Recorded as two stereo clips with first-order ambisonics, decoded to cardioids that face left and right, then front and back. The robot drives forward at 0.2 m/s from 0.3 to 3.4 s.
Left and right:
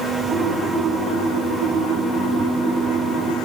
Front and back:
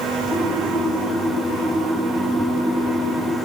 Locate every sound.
Only background noise.